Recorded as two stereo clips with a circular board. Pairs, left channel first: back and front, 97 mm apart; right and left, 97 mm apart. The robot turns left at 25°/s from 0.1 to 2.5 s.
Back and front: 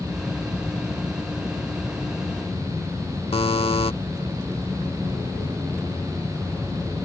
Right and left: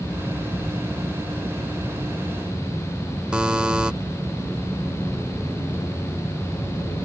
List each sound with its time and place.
3.3 s a buzzer: 170° left